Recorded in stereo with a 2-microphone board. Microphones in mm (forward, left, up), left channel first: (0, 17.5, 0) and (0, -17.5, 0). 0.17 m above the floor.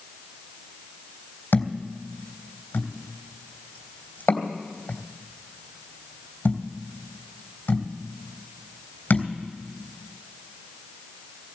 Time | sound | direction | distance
1.5 | a thud | 65° left (ahead or behind) | 3 m